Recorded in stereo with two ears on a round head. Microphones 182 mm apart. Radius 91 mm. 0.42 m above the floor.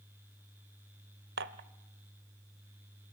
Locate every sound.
1.4 s dishes clattering: 55° right (ahead or behind), 1.0 m